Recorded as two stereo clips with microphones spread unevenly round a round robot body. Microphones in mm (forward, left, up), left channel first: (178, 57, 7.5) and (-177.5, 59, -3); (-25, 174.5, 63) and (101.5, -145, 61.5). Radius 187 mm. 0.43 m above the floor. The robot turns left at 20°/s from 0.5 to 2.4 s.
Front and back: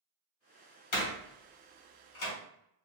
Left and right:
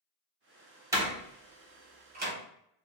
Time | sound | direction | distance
0.9 | a door slam | 10° left | 1.1 m